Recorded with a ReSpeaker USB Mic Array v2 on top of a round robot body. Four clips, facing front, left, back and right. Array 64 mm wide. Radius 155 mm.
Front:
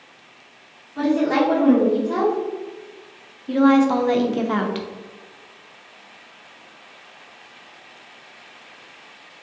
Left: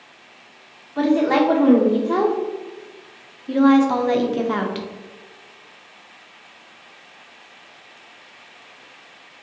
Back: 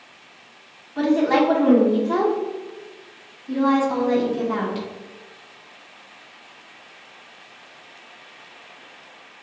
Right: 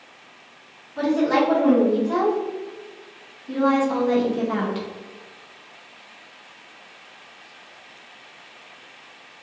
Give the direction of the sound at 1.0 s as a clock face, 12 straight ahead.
8 o'clock.